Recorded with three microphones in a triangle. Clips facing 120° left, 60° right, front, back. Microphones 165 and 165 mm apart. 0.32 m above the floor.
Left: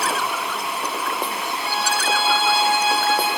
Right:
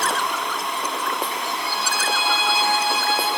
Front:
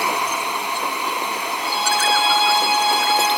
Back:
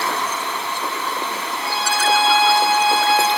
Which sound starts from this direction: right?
A violin, at 1.6 s.